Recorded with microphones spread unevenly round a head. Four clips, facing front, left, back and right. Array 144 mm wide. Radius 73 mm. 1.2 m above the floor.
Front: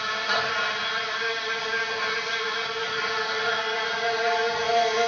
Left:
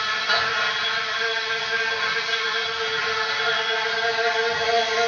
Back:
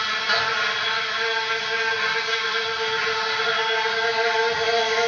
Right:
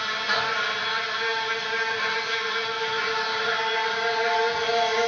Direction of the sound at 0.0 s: 35° right.